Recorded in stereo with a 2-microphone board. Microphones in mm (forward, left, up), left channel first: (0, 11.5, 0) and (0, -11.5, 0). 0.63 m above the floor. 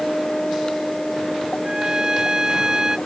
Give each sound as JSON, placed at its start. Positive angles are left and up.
{"t": 1.6, "sound": "a trumpet", "side_deg": -30}